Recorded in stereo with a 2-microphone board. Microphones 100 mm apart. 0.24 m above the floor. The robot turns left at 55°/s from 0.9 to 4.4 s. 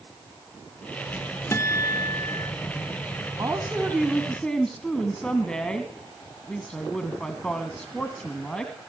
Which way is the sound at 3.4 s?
135° right.